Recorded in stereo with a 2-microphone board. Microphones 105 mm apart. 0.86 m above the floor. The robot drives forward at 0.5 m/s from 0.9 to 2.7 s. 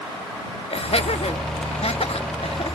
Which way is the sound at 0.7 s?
65° left (ahead or behind).